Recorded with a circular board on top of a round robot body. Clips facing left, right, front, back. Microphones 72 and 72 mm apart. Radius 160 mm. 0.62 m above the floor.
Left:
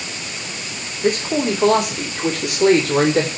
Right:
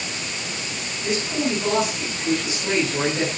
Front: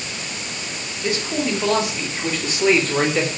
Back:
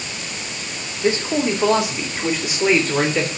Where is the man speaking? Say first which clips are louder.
Left 6 dB, back 4 dB; 120° left, 4.5 m; by 3.3 s 85° left, 3.5 m.